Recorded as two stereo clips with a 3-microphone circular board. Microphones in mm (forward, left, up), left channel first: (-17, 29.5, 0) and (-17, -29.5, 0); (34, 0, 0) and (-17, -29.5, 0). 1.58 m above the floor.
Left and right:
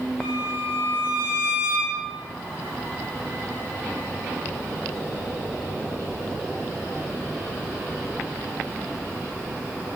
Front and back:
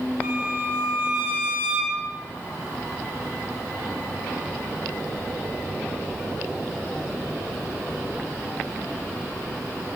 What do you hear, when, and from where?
0.2 s a violin: 175° right, 7 m